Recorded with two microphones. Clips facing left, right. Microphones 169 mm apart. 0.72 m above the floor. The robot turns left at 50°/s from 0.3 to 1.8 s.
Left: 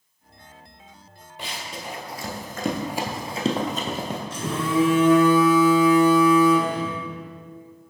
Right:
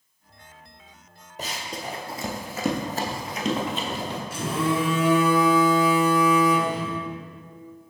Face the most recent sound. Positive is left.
turn(degrees=-10)  # may be behind; listen again after turning